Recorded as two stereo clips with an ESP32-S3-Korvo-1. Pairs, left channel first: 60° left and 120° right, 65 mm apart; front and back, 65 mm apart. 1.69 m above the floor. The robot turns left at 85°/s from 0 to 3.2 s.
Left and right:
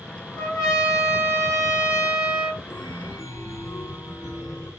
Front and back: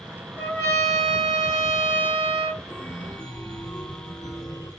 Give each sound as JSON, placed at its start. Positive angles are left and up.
{"t": 0.4, "sound": "a trumpet", "azimuth_deg": 80, "distance_m": 1.5}
{"t": 2.7, "sound": "a chime", "azimuth_deg": 65, "distance_m": 1.2}